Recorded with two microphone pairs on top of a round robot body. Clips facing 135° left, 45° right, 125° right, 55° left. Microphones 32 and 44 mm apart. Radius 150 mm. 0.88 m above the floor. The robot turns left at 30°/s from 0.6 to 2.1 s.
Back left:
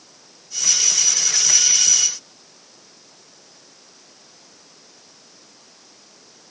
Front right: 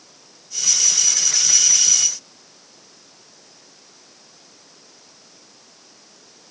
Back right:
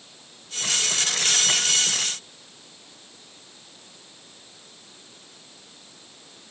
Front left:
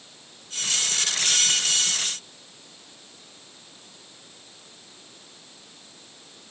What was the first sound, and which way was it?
Only background noise.